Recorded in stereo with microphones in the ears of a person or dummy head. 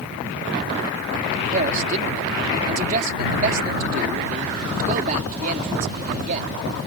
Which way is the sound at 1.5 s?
45° right (ahead or behind).